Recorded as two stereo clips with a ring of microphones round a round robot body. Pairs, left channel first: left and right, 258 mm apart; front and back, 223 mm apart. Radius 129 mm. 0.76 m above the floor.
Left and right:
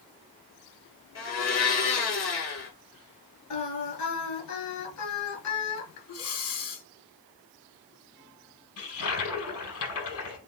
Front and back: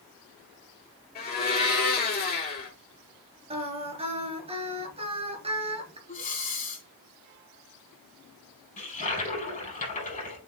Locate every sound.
1.1 s a blender: 50° left, 4.5 m
3.5 s singing: 115° left, 3 m
6.1 s breathing: 55° left, 5 m
8.8 s a toilet flushing: 55° left, 5 m